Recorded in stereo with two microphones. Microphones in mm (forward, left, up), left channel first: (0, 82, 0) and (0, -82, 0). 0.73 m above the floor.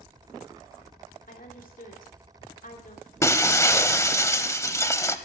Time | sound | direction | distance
1.3 | a woman speaking | 55° left (ahead or behind) | 2.5 m
3.2 | breaking glass | 15° left (ahead or behind) | 0.8 m